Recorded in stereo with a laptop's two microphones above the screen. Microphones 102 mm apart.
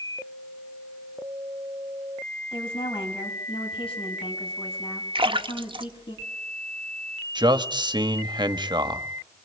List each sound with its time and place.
2.5 s a woman speaking: 65° left (ahead or behind), 6.5 m
5.2 s a splash: 65° right (ahead or behind), 1.1 m
7.3 s a man speaking: 50° right (ahead or behind), 1.5 m